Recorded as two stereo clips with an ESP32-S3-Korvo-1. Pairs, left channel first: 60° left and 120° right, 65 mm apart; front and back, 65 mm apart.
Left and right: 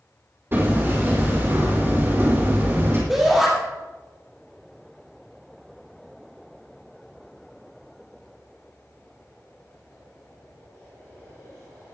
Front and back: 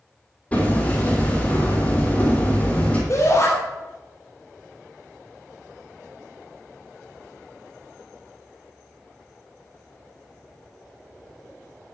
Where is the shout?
40° right, 4 m.